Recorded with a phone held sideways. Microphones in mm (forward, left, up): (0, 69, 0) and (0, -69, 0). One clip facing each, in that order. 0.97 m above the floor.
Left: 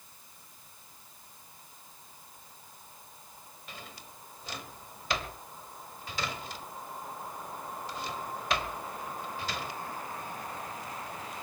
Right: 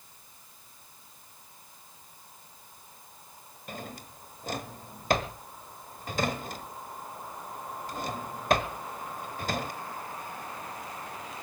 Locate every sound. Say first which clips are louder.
3.7 s a drawer: right 8 dB; 45° right (ahead or behind), 1.3 m